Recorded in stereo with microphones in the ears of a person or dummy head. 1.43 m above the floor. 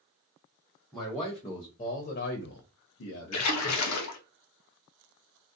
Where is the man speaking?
5° right (ahead or behind), 0.9 m; by 3.5 s 75° left (ahead or behind), 0.9 m.